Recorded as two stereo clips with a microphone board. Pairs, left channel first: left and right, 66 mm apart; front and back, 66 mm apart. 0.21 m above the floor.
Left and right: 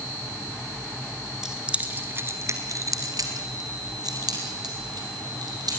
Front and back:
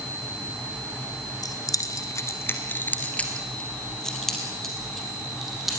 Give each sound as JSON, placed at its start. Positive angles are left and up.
{"t": 1.4, "sound": "keys jangling", "azimuth_deg": -10, "distance_m": 2.0}